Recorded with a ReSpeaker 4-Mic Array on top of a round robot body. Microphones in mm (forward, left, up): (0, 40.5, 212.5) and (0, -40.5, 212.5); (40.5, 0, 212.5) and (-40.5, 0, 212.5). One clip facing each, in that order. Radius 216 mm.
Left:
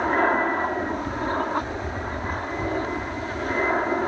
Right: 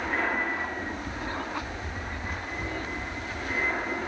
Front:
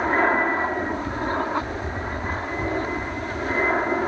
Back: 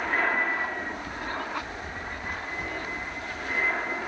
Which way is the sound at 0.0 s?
55° left.